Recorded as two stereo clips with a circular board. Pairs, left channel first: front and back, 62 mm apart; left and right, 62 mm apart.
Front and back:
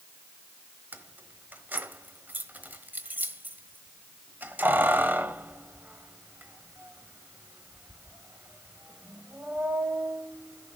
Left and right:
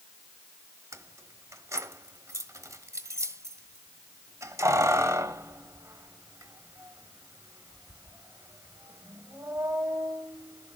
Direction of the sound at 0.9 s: 120° right.